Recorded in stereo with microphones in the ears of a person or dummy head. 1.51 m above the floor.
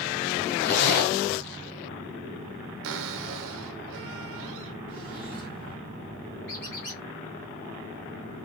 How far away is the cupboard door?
About 0.7 m.